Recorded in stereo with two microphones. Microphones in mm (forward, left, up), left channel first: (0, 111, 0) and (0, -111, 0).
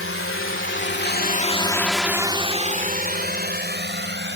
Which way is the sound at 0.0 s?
70° left (ahead or behind).